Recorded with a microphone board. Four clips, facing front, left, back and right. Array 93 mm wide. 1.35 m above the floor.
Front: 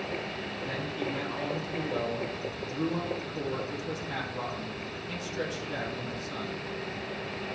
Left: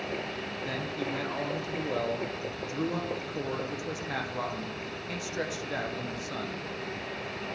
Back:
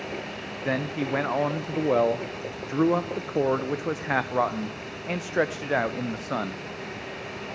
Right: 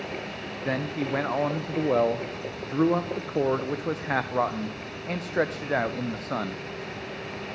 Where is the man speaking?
145° right, 0.5 m.